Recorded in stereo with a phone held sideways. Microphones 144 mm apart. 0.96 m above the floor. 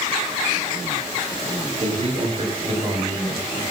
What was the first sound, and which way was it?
A man speaking, 45° right (ahead or behind).